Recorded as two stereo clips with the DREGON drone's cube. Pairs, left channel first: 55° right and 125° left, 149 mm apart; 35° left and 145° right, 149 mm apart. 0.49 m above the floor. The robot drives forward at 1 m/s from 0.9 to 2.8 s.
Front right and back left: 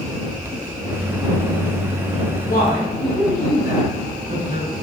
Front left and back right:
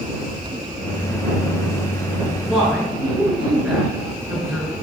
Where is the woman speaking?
70° right, 4.5 m; by 4.7 s 75° right, 4.5 m.